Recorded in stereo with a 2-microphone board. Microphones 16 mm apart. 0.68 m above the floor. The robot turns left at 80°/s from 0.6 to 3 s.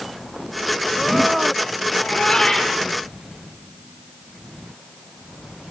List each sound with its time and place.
1.9 s a cat meowing: 80° left, 5.5 m; by 2.8 s 5° left, 5.5 m